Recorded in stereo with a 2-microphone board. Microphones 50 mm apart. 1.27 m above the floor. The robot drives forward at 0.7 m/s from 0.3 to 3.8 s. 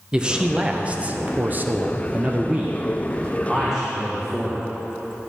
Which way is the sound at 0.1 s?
15° right (ahead or behind).